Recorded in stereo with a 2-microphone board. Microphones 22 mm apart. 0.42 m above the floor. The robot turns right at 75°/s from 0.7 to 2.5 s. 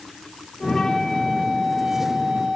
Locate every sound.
0.6 s a flute: 145° left, 2 m; by 2.6 s 80° right, 2 m